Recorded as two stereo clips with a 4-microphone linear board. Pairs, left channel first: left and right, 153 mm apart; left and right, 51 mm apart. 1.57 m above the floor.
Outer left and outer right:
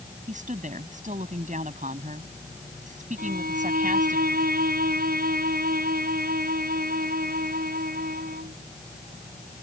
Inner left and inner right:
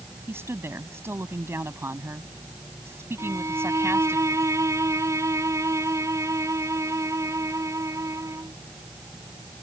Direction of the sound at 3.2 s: 75° right (ahead or behind).